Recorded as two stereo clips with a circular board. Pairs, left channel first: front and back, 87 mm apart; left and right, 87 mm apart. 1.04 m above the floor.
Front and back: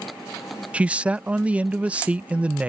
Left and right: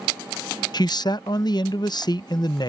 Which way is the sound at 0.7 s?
105° left.